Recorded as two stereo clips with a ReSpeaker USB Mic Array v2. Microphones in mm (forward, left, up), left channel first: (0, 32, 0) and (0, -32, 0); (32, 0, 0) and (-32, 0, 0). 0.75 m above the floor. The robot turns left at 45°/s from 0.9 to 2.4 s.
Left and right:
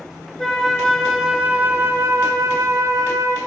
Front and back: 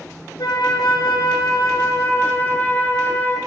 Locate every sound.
0.4 s a flute: 5° left, 2 m; by 3.4 s 65° right, 2 m